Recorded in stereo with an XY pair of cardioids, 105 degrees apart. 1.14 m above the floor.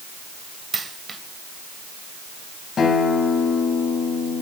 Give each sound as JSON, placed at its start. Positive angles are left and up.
{"t": 0.7, "sound": "a dropped coin", "azimuth_deg": -30, "distance_m": 3.0}
{"t": 2.8, "sound": "a guitar", "azimuth_deg": 45, "distance_m": 6.5}